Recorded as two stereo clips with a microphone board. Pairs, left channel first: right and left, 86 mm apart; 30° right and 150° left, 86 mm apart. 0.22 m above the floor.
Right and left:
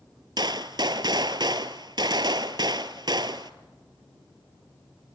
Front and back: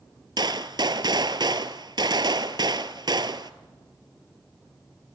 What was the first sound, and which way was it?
A gunshot, 120° left.